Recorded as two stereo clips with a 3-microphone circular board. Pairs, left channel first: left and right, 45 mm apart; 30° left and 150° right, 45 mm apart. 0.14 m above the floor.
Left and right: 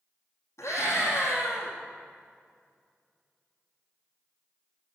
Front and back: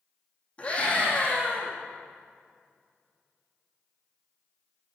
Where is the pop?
No pop in this recording.